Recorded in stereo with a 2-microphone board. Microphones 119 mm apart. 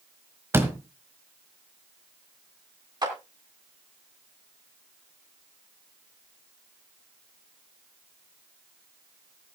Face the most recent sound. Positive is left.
turn(degrees=-35)  # may be behind; listen again after turning